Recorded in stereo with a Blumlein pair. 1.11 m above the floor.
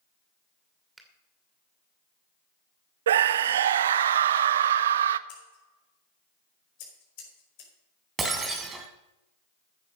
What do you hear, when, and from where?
1.0 s a finger snap: 10° right, 2.5 m
3.1 s a scream: 60° right, 0.6 m
5.3 s scissors: 45° left, 5 m
8.2 s breaking glass: 15° right, 2.5 m